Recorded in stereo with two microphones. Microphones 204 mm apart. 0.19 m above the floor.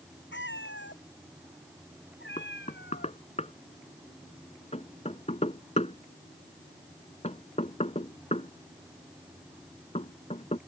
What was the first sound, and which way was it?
A cat meowing, 75° left (ahead or behind).